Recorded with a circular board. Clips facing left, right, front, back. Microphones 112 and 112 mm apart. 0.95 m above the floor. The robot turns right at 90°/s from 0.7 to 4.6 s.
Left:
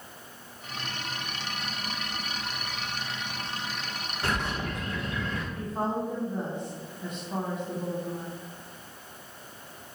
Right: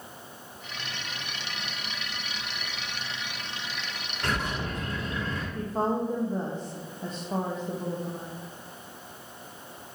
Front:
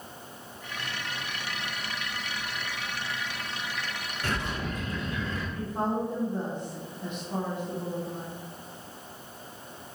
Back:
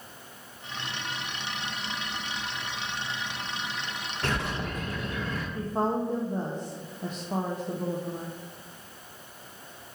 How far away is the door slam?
I don't hear a door slam.